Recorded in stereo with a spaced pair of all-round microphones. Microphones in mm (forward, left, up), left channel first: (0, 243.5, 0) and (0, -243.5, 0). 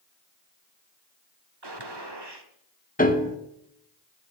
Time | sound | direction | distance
1.6 | a gunshot | 55° right (ahead or behind) | 1.4 m
3.0 | a piano | 15° left (ahead or behind) | 1.3 m